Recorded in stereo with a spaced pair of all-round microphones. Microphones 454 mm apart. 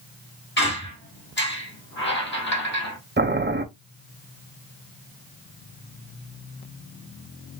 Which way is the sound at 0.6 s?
25° left (ahead or behind).